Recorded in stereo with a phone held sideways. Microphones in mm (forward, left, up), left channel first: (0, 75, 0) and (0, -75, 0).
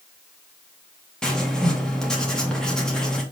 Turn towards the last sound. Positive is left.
turn(degrees=5)  # may be behind; listen again after turning